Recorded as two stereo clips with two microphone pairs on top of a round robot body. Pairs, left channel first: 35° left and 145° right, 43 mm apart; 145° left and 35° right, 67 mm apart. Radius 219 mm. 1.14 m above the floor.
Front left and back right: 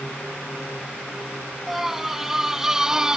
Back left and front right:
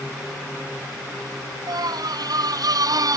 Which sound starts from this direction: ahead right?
A scream, at 1.7 s.